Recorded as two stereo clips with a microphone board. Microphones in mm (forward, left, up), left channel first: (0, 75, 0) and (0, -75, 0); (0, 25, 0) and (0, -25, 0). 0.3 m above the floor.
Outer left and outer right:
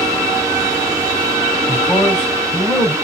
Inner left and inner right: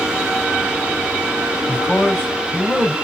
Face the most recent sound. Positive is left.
turn(degrees=15)  # may be behind; listen again after turning